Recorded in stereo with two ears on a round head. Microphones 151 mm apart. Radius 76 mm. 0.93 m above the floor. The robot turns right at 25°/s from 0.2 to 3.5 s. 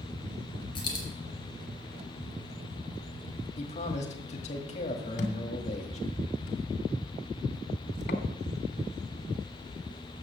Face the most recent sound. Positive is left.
turn(degrees=50)  # may be behind; listen again after turning